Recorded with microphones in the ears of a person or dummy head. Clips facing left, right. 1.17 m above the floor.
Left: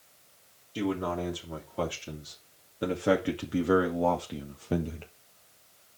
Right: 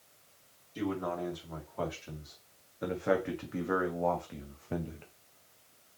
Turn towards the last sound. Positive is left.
turn(degrees=50)  # may be behind; listen again after turning